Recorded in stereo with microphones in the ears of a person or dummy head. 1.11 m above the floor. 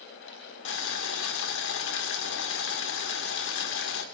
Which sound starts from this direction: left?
Boiling, at 0.7 s.